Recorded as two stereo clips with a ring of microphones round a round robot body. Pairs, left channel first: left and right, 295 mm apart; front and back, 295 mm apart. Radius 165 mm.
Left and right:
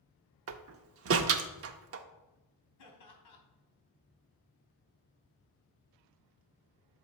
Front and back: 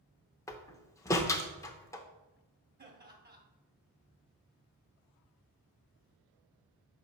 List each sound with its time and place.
0.5 s a door slam: 75° right, 0.6 m
2.8 s laughter: 125° left, 3 m